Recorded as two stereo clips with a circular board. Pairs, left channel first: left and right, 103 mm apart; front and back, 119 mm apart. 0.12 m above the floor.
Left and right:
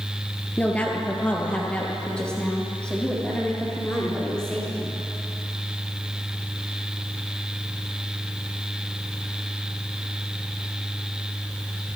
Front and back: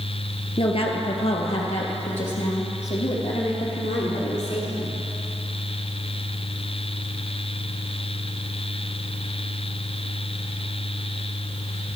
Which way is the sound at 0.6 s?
20° left.